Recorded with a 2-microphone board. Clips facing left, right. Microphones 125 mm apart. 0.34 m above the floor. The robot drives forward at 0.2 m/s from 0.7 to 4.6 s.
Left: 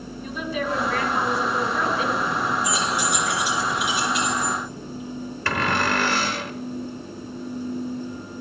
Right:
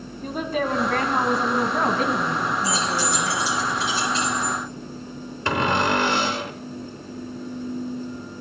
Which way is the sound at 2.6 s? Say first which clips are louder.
Even; 20° left (ahead or behind).